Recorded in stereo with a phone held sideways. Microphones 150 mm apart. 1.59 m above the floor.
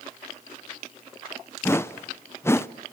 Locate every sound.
1.6 s a whoosh: 15° left (ahead or behind), 0.6 m